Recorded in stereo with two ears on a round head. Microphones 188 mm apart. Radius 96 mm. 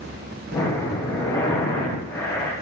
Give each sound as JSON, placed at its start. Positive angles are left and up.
{"t": 0.5, "sound": "breathing", "side_deg": 15, "distance_m": 8.0}